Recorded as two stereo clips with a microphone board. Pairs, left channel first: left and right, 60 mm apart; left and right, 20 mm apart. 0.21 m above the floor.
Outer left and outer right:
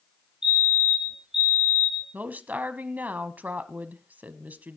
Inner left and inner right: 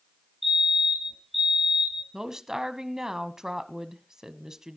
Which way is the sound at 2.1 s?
30° right (ahead or behind).